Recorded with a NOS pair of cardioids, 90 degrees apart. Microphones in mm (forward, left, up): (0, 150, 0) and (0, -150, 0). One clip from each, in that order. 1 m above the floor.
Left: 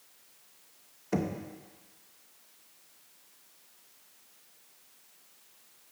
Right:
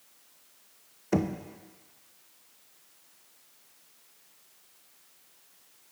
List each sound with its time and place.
1.1 s knocking: 15° right, 0.5 m